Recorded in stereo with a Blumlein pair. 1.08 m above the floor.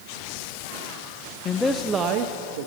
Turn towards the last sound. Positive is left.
turn(degrees=-60)